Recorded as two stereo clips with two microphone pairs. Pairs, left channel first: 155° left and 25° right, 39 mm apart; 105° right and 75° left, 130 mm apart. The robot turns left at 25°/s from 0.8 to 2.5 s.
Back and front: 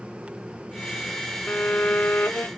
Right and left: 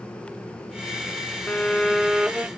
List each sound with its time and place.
1.5 s a violin: 175° left; by 2.5 s 150° left